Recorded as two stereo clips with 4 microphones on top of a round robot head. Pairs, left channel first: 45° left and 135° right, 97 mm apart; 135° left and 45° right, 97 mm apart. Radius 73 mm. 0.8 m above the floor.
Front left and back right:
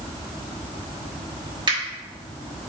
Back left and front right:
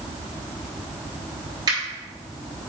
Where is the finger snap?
95° right, 3.5 m.